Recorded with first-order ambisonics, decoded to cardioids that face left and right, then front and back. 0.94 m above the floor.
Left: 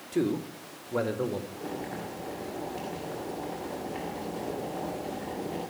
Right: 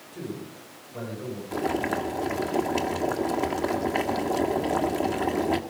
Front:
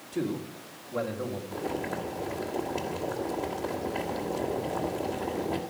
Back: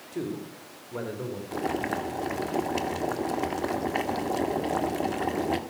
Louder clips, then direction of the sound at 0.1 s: Left 8 dB, front 2 dB; 95° left.